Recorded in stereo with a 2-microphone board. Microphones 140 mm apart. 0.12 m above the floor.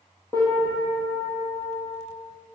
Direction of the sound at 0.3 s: 25° left (ahead or behind).